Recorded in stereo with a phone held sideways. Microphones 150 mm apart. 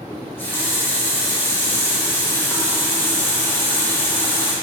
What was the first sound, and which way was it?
A running tap, 15° left (ahead or behind).